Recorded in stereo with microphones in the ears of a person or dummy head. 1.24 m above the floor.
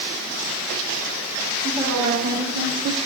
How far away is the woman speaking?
About 2.5 m.